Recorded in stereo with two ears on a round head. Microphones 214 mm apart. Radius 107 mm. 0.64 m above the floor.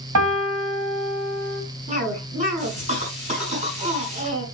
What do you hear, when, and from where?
0.1 s a piano: 80° right, 2 m
1.9 s a cough: 30° right (ahead or behind), 6 m